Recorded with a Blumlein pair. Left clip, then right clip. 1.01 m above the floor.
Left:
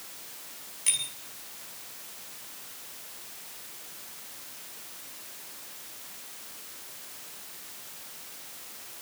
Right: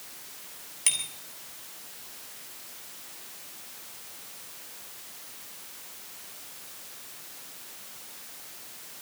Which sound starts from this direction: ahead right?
A bicycle bell, at 0.9 s.